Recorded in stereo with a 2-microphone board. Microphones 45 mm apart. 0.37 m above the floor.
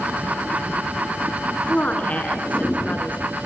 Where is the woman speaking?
35° left (ahead or behind), 4 m.